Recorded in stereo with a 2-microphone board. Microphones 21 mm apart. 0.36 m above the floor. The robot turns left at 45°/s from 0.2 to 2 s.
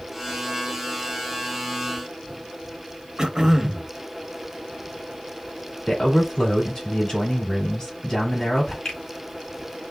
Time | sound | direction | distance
3.2 | throat clearing | 30° right (ahead or behind) | 0.9 m
5.9 | a man speaking | 30° left (ahead or behind) | 2 m
8.8 | a finger snap | 35° left (ahead or behind) | 2 m